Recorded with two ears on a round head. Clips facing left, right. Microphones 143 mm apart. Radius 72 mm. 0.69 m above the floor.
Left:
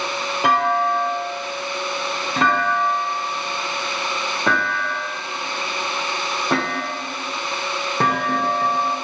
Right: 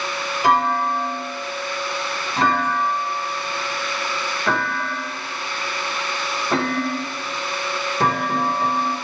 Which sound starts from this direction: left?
A clunk, at 0.4 s.